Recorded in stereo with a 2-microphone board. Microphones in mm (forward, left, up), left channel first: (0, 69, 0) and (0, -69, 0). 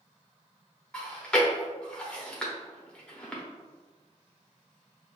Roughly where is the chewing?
Centre.